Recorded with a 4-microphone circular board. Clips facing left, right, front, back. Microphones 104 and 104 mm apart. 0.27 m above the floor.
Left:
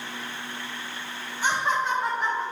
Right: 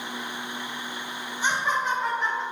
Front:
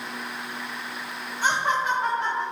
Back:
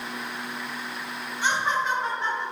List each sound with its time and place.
1.4 s laughter: 25° right, 1.6 m; by 2.4 s 5° left, 2 m